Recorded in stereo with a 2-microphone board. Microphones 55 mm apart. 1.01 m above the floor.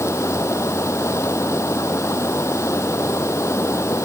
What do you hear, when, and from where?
0.0 s running water: 60° left (ahead or behind)